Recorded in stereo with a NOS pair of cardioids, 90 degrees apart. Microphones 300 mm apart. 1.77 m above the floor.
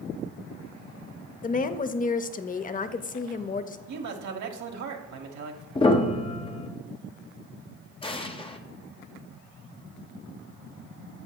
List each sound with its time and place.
1.4 s a woman speaking: 30° left, 0.6 m
3.9 s a man speaking: 70° right, 1.2 m
5.8 s a piano: 20° left, 0.7 m
8.0 s an explosion: 20° left, 0.7 m